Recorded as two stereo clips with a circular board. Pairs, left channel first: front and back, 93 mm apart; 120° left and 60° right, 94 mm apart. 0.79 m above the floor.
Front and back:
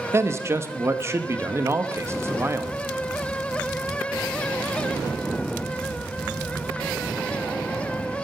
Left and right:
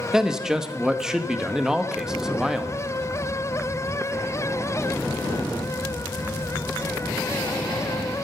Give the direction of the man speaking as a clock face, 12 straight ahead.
5 o'clock.